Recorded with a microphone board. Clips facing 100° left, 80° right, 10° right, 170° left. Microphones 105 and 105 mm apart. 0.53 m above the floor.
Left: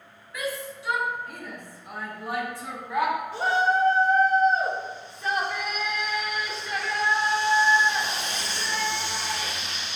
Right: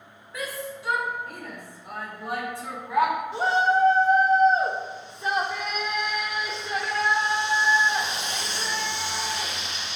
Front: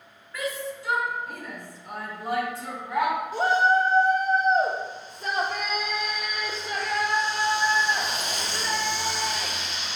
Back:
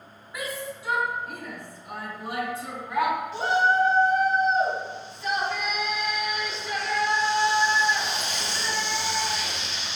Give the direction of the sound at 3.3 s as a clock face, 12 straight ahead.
1 o'clock.